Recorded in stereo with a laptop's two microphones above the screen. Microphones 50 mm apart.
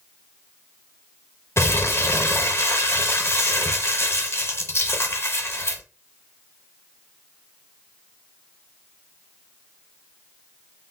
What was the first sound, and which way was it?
Crumpling, 55° left (ahead or behind).